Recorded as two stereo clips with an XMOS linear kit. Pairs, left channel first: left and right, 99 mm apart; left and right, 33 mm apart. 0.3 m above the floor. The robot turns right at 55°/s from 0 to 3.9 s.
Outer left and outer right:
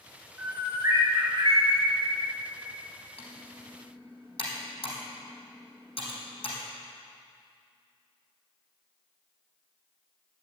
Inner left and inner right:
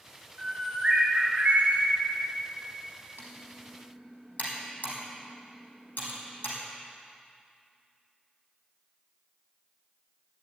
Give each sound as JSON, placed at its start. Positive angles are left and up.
{"t": 0.4, "sound": "a bird", "azimuth_deg": -170, "distance_m": 3.0}
{"t": 3.2, "sound": "typing on a keyboard", "side_deg": 70, "distance_m": 4.5}